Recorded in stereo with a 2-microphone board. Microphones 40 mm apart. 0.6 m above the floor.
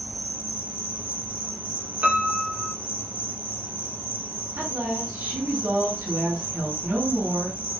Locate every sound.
0.0 s an insect: 60° right (ahead or behind), 1.9 m
2.0 s a piano: 35° right (ahead or behind), 1.1 m
4.6 s a woman speaking: 80° right, 3 m